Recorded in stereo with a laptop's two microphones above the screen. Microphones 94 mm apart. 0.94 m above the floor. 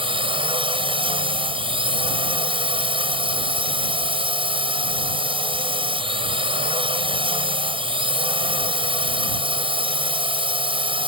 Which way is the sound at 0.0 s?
65° right (ahead or behind).